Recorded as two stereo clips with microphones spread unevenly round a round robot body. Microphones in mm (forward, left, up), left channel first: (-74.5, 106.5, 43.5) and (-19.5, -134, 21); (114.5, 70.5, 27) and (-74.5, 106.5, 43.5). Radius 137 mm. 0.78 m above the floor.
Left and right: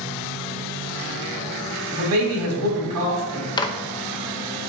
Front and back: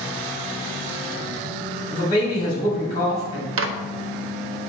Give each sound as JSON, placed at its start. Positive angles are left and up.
{"t": 1.9, "sound": "a man speaking", "azimuth_deg": -85, "distance_m": 2.5}
{"t": 3.6, "sound": "a microwave", "azimuth_deg": 180, "distance_m": 0.6}